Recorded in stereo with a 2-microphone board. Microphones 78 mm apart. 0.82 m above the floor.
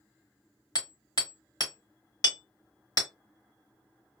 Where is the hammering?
65° left (ahead or behind), 1.4 m.